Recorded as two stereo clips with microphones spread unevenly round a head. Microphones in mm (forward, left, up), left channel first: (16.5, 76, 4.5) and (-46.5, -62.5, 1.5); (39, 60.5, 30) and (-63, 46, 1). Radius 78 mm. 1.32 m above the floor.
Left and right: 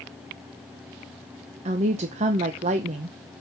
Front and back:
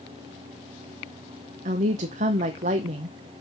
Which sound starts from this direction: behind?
A woman speaking, at 1.6 s.